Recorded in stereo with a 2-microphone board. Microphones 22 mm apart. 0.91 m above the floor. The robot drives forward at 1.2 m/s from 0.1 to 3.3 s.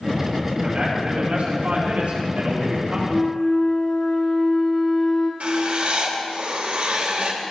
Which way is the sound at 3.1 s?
55° left (ahead or behind).